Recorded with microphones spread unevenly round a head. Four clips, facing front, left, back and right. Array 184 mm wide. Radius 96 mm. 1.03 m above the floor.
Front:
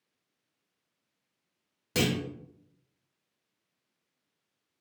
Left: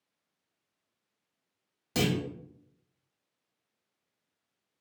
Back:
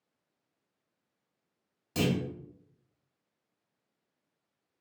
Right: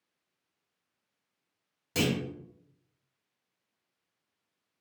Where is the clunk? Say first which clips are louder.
Even, front 1 dB; 5° left, 1.5 m.